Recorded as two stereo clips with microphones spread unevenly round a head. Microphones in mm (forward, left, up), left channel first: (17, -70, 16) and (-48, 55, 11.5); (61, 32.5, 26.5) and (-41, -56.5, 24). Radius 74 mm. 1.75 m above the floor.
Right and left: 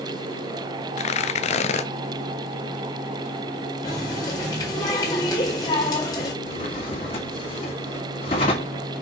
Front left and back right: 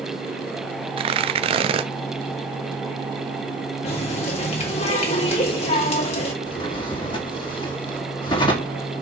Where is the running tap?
Straight ahead, 2.0 m.